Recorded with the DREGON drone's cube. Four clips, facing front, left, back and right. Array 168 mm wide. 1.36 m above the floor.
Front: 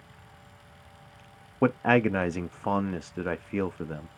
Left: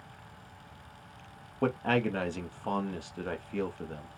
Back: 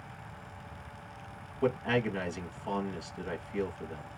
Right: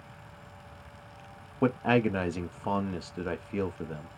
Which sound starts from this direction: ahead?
A man speaking, at 1.6 s.